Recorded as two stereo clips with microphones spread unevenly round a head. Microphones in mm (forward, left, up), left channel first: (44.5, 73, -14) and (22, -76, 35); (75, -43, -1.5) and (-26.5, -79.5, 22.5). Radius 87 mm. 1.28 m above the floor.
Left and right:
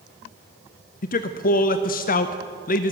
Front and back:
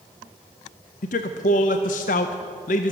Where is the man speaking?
40° left, 0.6 m.